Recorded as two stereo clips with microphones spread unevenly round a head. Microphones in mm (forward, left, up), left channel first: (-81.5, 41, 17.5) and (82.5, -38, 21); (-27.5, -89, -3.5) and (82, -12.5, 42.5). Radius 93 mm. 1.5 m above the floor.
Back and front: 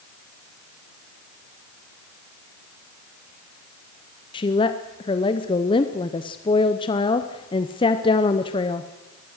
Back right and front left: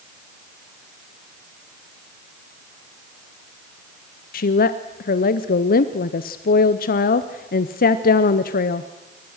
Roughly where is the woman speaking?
Behind right.